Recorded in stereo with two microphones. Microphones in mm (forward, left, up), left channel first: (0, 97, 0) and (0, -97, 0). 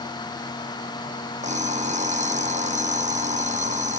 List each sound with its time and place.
1.4 s an alarm clock: 40° right (ahead or behind)